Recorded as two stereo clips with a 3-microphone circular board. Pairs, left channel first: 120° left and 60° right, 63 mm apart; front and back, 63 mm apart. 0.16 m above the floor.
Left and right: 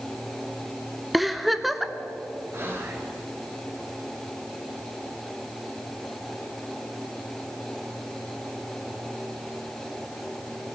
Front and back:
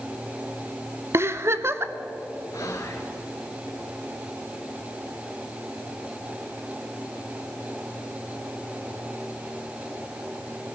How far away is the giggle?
About 0.8 m.